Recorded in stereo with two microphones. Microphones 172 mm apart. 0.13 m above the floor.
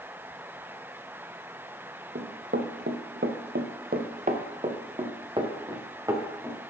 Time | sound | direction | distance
2.1 | running footsteps | 75° right (ahead or behind) | 1.4 m